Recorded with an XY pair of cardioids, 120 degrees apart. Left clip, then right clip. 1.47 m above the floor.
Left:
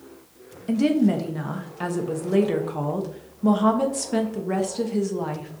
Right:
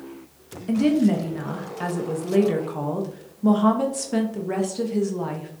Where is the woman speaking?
10° left, 0.9 m.